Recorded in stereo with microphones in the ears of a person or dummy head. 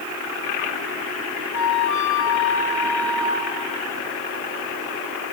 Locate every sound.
1.5 s a flute: 70° left (ahead or behind), 1.3 m